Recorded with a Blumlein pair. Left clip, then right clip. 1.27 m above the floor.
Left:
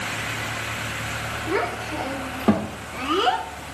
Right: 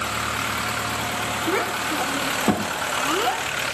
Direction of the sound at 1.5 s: 10° right.